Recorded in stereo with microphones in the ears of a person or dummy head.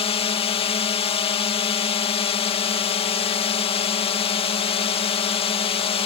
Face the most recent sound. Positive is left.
turn(degrees=30)  # may be behind; listen again after turning